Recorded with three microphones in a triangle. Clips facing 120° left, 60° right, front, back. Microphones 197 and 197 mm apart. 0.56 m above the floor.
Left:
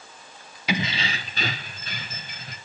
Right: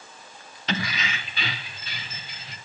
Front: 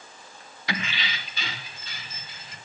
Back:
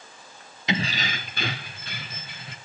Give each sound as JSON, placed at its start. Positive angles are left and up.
{"t": 0.7, "sound": "keys jangling", "azimuth_deg": 180, "distance_m": 0.5}